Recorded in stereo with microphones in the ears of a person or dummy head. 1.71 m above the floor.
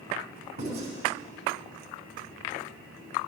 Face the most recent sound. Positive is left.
turn(degrees=-40)  # may be behind; listen again after turning